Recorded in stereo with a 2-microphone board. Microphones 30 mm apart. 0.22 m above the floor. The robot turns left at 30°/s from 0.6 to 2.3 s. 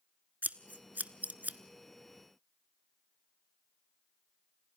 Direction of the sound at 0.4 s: 70° right (ahead or behind).